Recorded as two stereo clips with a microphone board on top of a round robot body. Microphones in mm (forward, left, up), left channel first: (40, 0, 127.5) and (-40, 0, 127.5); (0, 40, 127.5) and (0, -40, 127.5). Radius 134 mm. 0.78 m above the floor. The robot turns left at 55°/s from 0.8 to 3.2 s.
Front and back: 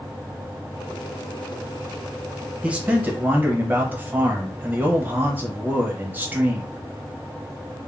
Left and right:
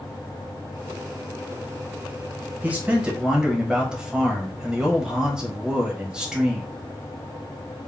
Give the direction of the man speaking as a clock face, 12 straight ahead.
4 o'clock.